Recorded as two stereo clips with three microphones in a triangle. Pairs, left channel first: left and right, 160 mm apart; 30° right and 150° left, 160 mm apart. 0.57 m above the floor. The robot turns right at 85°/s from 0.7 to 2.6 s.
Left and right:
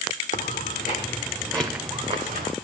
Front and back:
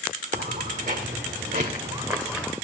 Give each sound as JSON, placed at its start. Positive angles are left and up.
{"t": 0.3, "sound": "footsteps", "azimuth_deg": 120, "distance_m": 1.4}